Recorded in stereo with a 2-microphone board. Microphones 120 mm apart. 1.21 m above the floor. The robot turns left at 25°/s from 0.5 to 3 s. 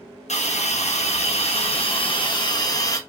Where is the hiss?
90° left, 0.9 m; by 3.0 s 30° left, 0.9 m.